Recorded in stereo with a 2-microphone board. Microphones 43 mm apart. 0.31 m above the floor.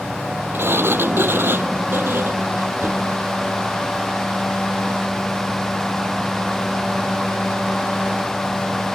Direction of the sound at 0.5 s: 60° right (ahead or behind).